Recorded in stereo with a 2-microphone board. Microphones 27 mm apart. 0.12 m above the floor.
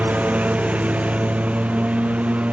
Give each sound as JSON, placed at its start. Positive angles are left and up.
{"t": 0.0, "sound": "a lawn mower", "side_deg": -60}